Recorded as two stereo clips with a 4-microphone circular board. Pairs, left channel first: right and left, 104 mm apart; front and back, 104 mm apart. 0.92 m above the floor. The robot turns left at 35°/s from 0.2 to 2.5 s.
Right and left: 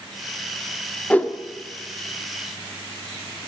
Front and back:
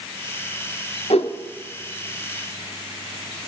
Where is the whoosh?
15° right, 0.9 m; by 1.3 s 20° right, 0.9 m.